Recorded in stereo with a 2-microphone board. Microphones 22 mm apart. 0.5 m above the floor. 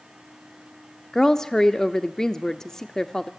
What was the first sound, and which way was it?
A woman speaking, 25° left (ahead or behind).